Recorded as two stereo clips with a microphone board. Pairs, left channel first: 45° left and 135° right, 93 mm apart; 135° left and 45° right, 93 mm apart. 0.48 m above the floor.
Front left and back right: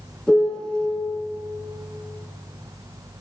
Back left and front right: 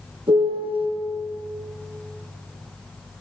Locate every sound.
0.3 s a piano: 40° right, 1.9 m